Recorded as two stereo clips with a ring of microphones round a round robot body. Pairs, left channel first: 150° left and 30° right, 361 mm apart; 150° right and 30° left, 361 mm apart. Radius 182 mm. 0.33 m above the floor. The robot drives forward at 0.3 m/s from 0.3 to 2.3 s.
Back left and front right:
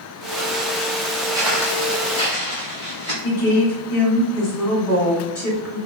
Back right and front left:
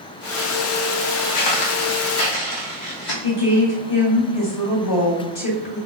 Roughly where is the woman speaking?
Behind right.